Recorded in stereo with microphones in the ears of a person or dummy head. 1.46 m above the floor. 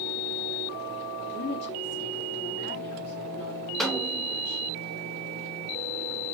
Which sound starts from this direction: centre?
A snare drum, at 3.8 s.